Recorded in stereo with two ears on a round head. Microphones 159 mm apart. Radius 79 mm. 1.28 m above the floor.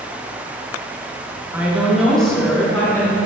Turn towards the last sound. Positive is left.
turn(degrees=15)  # may be behind; listen again after turning